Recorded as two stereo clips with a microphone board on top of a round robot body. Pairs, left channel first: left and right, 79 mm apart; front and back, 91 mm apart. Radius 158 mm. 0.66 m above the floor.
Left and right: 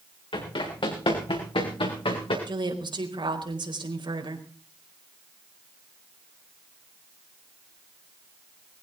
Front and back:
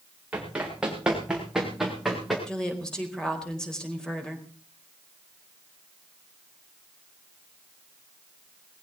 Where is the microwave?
I don't hear a microwave.